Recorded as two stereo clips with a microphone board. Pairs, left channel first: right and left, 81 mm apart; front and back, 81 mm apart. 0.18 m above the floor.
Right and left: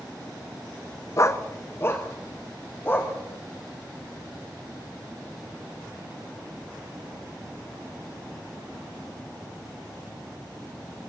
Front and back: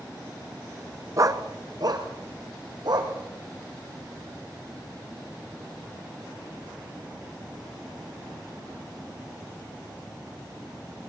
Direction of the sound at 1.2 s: 140° right.